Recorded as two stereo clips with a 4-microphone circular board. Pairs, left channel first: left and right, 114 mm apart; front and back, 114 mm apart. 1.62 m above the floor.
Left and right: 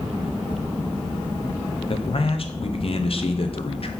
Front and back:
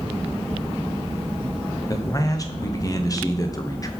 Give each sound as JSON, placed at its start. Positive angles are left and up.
{"t": 1.9, "sound": "a man speaking", "azimuth_deg": 60, "distance_m": 0.8}